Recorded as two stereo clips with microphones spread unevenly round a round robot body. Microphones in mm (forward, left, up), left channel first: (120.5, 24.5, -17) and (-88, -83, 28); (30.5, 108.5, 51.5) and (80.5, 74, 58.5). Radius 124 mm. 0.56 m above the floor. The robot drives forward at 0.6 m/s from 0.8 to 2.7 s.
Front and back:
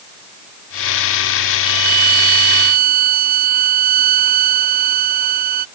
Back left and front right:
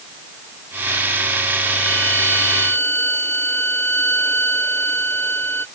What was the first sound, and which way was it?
A violin, 140° right.